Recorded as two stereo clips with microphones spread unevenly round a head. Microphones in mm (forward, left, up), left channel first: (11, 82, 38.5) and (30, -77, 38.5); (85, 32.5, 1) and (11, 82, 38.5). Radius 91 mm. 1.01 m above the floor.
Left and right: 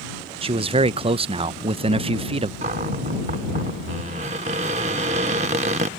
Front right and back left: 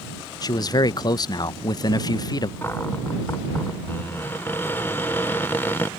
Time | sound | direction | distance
0.4 | a man speaking | 30° right | ?
2.6 | a cupboard door | 130° right | ?